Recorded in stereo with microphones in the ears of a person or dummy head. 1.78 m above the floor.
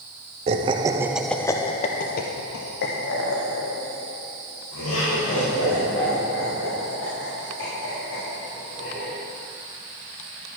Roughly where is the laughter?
Right.